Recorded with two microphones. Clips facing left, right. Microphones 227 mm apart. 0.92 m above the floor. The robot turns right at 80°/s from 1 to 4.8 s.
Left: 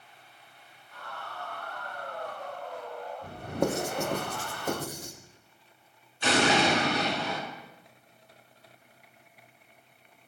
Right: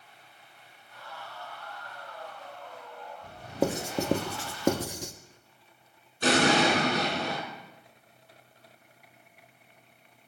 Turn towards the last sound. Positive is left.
turn(degrees=-45)  # may be behind; listen again after turning